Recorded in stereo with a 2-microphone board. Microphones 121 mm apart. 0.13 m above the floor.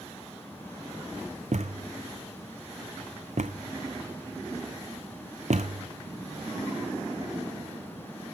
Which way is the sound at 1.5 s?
70° right (ahead or behind).